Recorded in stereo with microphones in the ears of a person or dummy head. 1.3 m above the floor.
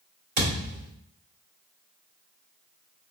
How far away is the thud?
About 2.5 m.